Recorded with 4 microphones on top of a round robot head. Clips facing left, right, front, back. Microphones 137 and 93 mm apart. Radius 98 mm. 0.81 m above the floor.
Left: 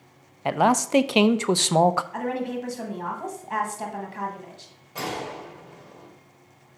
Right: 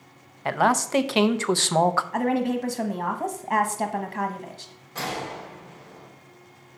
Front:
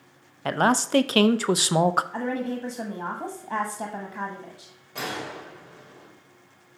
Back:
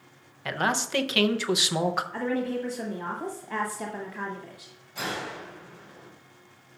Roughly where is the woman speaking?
Ahead right.